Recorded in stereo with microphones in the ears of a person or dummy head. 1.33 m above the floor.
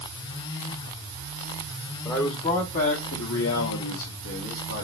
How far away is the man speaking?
About 0.8 m.